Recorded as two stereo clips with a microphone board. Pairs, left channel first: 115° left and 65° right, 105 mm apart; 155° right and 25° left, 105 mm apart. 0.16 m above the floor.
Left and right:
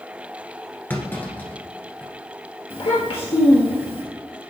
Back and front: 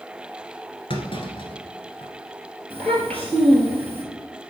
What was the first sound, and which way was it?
A clunk, straight behind.